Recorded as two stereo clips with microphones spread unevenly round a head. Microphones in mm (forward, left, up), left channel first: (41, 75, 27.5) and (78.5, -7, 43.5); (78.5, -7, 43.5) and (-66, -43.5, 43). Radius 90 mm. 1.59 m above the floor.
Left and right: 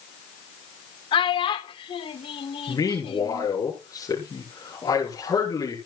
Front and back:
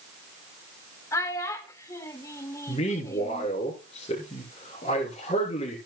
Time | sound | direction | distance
1.1 | a child speaking | 90° left | 1.6 m
2.7 | a man speaking | 70° left | 5 m